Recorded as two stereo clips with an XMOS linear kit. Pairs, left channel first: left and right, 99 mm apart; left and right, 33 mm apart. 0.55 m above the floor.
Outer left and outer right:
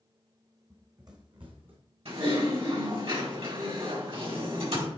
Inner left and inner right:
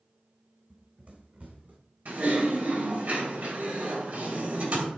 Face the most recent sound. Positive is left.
turn(degrees=-70)  # may be behind; listen again after turning